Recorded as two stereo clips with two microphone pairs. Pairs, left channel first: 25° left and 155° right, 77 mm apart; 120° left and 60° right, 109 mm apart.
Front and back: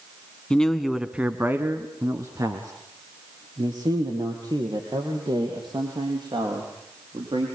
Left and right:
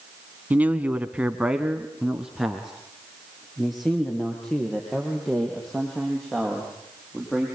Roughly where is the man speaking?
Ahead.